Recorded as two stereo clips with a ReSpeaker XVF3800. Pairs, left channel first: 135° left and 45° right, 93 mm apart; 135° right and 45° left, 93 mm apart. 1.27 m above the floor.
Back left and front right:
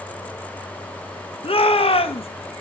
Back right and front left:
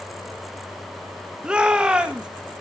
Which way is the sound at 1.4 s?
125° left.